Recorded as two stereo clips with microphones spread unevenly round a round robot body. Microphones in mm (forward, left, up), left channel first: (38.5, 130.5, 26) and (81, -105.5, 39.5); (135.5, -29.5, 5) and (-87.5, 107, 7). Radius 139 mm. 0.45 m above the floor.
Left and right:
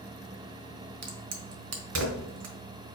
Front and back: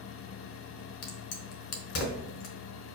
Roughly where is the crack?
Ahead right.